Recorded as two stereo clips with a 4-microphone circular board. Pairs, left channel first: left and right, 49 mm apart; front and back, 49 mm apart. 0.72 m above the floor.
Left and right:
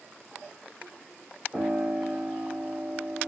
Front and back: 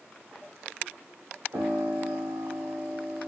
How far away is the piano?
About 4 m.